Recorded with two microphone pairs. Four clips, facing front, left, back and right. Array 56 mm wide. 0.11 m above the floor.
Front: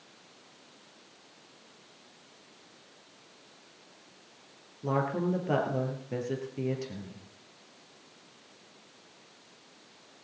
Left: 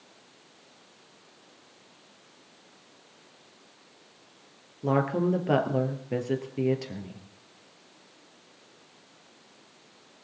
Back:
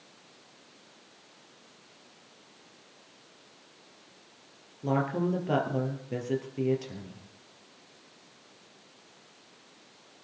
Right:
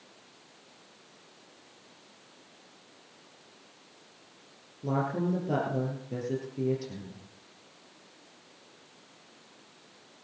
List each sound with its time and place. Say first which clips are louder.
4.8 s a woman speaking: left 5 dB, back 1 dB; 95° left, 3 m